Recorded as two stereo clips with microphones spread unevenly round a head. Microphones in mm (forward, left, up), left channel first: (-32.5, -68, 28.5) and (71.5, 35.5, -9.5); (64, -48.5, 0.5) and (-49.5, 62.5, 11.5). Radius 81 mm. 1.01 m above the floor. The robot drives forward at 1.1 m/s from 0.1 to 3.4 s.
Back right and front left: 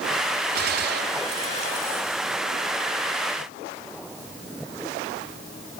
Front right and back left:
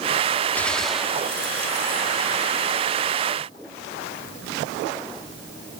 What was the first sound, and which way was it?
A gunshot, 35° left.